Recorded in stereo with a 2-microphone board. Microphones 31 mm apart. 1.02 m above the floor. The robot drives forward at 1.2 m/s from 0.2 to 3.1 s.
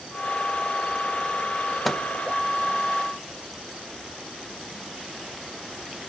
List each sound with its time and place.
1.9 s a microwave: centre (ahead or behind), 0.6 m